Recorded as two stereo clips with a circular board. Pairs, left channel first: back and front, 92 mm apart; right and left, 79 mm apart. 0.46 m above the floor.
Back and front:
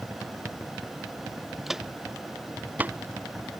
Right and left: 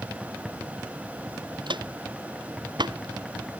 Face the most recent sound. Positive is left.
turn(degrees=60)